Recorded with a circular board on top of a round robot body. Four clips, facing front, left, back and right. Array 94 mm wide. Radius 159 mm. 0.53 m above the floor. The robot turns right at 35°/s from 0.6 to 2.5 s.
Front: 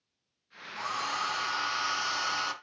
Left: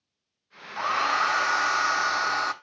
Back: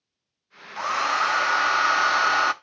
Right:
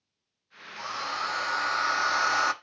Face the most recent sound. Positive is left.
turn(degrees=-165)